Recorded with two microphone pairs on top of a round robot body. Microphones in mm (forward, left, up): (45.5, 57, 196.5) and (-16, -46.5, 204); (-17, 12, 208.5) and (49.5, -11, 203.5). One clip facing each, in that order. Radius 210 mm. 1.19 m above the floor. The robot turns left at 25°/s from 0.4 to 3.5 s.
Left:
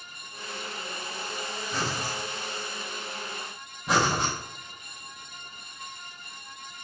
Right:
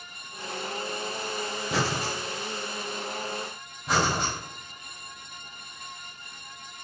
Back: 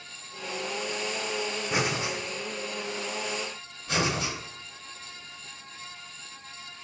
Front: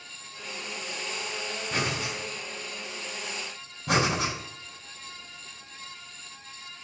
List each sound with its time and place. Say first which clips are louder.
1.7 s breathing: right 4 dB, back 2 dB; 120° right, 1.2 m; by 2.1 s 130° right, 1.2 m
3.9 s breathing: left 1 dB, front 3 dB; 30° right, 5 m